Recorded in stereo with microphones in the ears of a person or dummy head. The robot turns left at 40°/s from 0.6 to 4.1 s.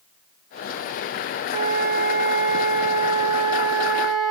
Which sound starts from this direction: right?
A flute, at 1.5 s.